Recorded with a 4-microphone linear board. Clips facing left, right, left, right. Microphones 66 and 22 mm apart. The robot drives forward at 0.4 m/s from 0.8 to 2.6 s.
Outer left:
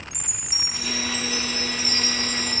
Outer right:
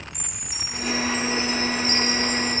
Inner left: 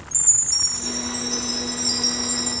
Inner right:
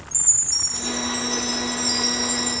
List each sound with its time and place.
0.1 s a chime: 10° left (ahead or behind), 2.5 m